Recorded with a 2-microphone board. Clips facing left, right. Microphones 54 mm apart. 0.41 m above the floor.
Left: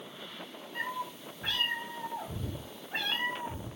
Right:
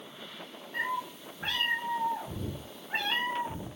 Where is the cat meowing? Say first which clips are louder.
Right 3 dB; 70° right (ahead or behind), 7 m; by 3.7 s 60° right (ahead or behind), 9 m.